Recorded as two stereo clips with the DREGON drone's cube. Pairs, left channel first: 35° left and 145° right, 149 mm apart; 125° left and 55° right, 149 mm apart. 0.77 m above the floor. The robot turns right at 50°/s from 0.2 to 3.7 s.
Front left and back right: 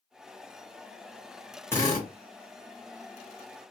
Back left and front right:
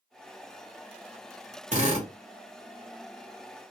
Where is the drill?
35° right, 1.8 m; by 2.1 s 15° right, 1.8 m.